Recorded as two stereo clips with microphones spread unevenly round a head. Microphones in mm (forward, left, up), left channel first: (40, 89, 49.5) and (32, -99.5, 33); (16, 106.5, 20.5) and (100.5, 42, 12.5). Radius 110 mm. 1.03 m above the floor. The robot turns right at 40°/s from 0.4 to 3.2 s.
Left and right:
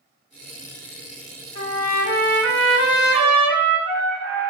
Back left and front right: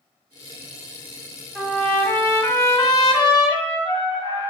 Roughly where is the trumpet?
Ahead left.